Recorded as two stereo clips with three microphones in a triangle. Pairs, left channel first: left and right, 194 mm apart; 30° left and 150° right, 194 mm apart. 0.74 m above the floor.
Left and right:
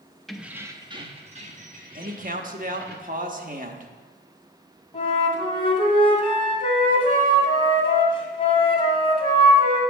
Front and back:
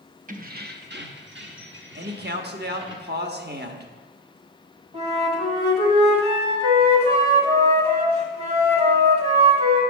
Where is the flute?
150° left, 2.0 m.